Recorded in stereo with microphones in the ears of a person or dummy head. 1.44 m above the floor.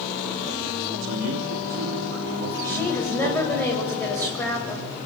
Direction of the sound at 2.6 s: 10° left (ahead or behind).